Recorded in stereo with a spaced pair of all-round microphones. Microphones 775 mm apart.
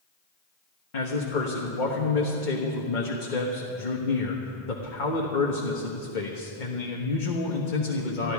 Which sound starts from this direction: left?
A man speaking, at 0.9 s.